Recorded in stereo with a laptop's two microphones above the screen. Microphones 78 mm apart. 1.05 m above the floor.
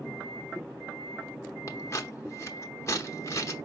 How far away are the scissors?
About 0.8 m.